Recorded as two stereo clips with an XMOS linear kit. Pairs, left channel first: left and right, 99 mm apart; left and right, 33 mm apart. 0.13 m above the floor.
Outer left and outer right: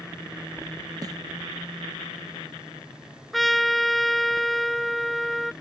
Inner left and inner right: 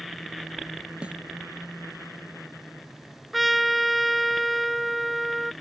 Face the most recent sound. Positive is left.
turn(degrees=0)  # may be behind; listen again after turning